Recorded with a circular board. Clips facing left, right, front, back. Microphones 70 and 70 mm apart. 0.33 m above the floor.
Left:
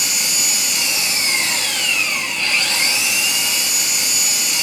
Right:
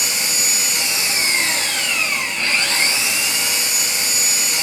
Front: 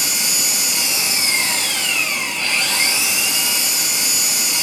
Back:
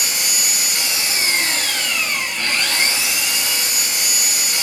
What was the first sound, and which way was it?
An engine running, 145° right.